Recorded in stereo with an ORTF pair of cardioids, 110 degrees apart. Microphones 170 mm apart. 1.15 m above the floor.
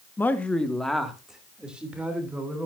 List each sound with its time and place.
0.2 s a man speaking: 15° left, 1.3 m; by 2.7 s 10° right, 4 m